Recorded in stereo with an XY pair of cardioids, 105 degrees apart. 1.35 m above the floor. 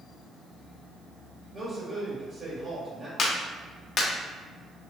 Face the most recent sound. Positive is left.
turn(degrees=50)